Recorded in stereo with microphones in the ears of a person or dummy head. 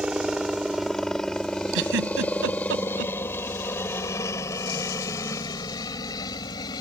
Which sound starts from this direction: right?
A giggle, at 1.7 s.